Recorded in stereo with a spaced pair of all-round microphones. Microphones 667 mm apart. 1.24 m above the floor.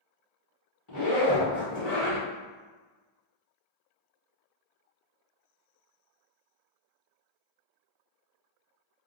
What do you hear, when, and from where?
0.9 s a zipper: 30° left (ahead or behind), 1.3 m